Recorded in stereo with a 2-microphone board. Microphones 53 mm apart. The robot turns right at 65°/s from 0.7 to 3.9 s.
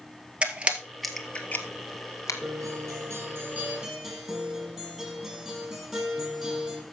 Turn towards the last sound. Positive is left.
turn(degrees=-15)